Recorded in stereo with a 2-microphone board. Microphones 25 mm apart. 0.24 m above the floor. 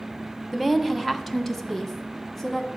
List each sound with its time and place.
0.5 s a woman speaking: 5° right (ahead or behind), 1.2 m; by 2.7 s 10° left (ahead or behind), 2 m